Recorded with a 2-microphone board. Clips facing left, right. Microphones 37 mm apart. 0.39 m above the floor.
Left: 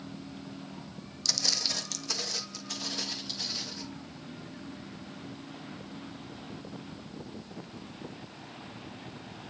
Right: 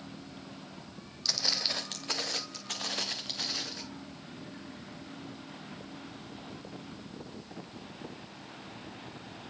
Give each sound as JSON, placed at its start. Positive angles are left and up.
{"t": 1.2, "sound": "footsteps", "side_deg": -10, "distance_m": 0.9}